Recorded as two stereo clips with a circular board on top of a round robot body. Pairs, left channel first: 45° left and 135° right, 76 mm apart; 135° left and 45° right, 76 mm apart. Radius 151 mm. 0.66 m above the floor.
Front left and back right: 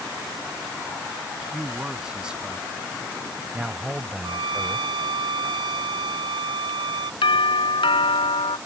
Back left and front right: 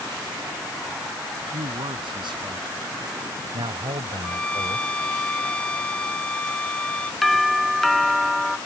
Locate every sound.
1.5 s a man speaking: 50° right; by 5.2 s 60° right
4.2 s a violin: 150° right
7.2 s a doorbell: 45° left